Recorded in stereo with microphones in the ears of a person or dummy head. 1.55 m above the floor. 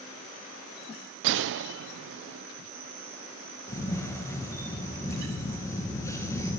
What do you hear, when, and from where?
1.2 s a gunshot: 70° right (ahead or behind), 0.5 m
3.7 s a camera shutter: 20° left (ahead or behind), 2.0 m